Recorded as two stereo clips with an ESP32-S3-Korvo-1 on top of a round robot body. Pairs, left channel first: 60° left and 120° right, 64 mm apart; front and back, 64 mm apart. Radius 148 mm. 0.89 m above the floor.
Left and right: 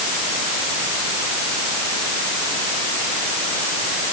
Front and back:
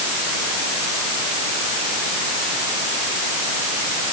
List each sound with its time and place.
Only background noise.